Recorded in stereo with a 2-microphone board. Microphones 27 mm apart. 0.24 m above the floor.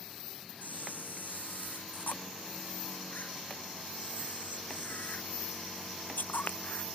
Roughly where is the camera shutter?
Left.